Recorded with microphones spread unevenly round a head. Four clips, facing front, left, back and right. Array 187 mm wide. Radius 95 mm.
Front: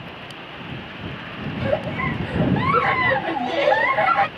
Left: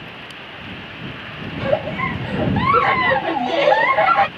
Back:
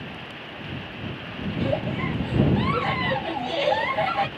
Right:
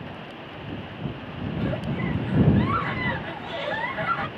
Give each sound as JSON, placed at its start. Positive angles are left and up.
{"t": 1.5, "sound": "a giggle", "azimuth_deg": 80}